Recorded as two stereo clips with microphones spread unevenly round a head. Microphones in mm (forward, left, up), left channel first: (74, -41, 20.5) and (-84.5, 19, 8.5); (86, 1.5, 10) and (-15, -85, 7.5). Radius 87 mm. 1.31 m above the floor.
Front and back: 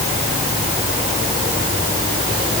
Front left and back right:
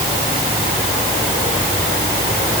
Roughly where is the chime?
I don't hear a chime.